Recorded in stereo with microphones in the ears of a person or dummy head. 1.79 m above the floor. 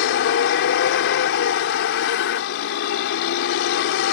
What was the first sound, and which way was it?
A vehicle, 70° left (ahead or behind).